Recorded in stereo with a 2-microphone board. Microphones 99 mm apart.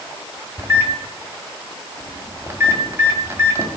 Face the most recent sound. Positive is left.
turn(degrees=-30)  # may be behind; listen again after turning